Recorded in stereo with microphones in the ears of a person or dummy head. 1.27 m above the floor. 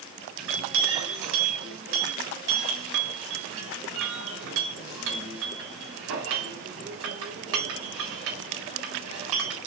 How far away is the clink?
About 4 m.